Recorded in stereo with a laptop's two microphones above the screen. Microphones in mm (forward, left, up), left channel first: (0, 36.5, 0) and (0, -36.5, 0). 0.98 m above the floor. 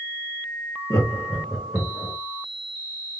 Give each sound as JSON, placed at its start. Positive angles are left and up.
{"t": 0.9, "sound": "laughter", "side_deg": 40, "distance_m": 0.6}